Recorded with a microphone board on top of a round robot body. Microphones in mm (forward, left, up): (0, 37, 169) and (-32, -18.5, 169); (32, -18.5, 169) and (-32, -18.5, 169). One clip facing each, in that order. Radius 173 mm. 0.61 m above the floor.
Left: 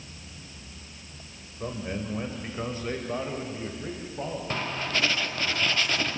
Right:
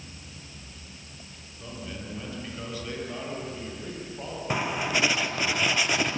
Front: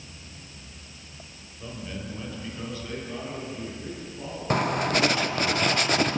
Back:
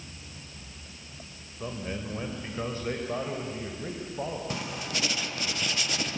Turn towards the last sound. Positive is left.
turn(degrees=-40)